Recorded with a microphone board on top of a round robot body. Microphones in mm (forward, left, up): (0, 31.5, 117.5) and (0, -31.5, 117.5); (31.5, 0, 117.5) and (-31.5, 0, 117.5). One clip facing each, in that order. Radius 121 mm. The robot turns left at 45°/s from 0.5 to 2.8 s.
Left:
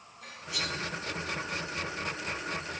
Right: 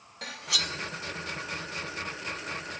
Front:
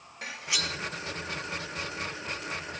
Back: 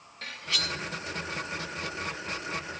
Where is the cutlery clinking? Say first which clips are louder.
Right 2 dB, even; 75° right, 0.5 m; by 0.8 s 90° right, 0.5 m.